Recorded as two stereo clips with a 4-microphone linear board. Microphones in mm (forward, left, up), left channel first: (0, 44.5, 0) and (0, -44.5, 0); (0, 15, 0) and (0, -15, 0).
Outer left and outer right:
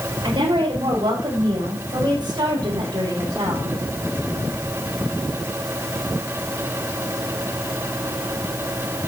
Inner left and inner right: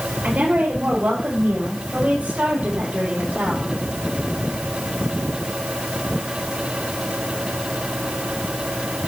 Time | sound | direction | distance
0.2 | a woman speaking | 55° right (ahead or behind) | 6 m